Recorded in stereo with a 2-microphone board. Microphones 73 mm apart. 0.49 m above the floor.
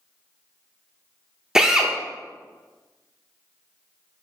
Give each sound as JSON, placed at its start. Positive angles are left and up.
{"t": 1.6, "sound": "a drill", "side_deg": -10, "distance_m": 0.5}